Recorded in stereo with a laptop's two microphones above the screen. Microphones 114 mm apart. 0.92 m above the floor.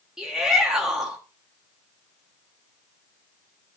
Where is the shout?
5° right (ahead or behind), 1.3 m.